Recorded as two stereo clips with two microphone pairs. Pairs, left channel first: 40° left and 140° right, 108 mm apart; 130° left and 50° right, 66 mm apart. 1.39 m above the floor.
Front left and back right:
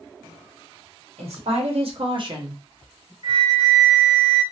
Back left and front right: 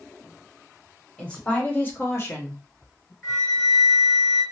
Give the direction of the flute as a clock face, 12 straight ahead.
5 o'clock.